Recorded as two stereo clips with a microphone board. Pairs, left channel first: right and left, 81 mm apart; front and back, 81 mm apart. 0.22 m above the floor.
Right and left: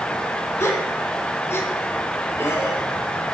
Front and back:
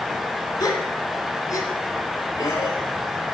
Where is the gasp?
35° right, 1.3 m.